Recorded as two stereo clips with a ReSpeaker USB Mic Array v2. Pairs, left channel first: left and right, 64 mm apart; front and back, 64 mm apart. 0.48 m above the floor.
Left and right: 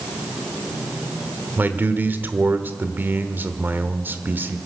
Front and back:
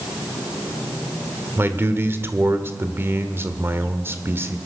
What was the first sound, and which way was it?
A man speaking, 140° right.